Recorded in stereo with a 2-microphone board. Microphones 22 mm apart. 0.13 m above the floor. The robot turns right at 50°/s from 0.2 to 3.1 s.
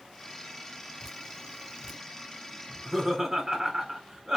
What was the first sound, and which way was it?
Dripping, 10° left (ahead or behind).